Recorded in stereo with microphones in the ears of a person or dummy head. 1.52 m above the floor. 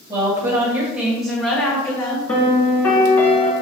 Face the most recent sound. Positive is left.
turn(degrees=15)  # may be behind; listen again after turning